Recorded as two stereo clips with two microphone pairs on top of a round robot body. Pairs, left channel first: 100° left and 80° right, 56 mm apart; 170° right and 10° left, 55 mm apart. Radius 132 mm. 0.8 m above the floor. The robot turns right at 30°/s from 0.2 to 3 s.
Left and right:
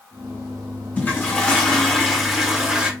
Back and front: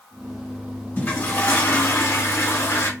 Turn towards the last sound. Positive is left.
turn(degrees=-150)